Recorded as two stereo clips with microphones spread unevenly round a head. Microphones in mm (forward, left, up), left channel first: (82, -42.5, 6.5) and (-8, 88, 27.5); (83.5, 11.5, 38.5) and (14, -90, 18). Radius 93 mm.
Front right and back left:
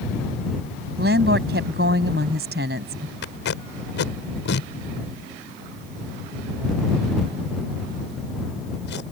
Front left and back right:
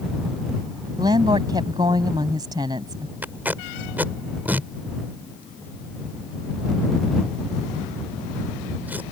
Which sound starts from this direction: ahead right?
Tape being pulled, at 3.2 s.